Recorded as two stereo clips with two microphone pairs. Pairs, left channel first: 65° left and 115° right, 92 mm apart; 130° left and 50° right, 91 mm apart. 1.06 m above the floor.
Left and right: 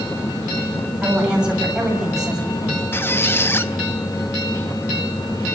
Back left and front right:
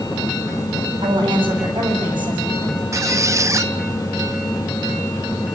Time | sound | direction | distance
1.0 | a woman speaking | 35° right | 7.5 m
2.9 | a squeak | straight ahead | 0.7 m